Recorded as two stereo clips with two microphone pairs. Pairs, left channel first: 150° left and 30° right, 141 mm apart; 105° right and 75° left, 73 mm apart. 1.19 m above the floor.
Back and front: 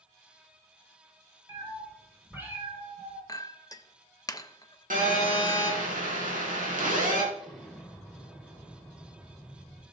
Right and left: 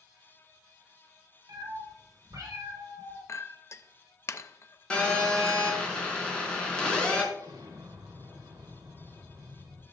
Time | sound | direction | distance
1.5 | a cat meowing | 40° left | 3.5 m
3.3 | a clink | 150° right | 0.5 m
4.9 | a phone buzzing | 30° right | 3 m
7.3 | an explosion | 60° left | 2.0 m